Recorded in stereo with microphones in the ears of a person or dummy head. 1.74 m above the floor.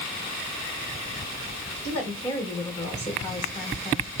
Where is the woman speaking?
20° left (ahead or behind), 3.5 m.